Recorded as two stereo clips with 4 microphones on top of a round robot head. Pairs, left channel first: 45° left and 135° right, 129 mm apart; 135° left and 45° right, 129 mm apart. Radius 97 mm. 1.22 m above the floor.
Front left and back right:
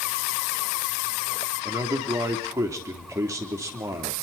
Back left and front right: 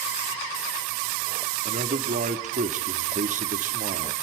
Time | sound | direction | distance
1.6 | a man speaking | 70° right | 3.5 m